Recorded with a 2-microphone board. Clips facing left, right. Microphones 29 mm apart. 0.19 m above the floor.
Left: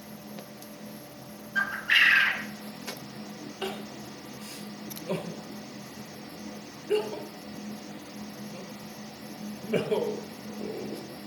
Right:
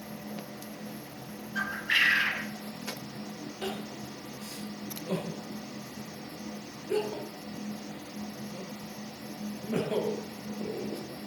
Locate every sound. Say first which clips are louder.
1.6 s a bird: left 4 dB; 20° left (ahead or behind), 0.7 m
3.6 s crying: left 1 dB; 75° left (ahead or behind), 1.7 m